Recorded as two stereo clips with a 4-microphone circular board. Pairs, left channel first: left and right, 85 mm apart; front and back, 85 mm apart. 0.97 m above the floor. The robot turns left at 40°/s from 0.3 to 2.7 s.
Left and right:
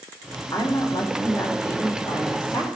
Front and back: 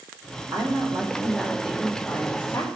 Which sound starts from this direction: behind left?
A woman speaking, at 0.5 s.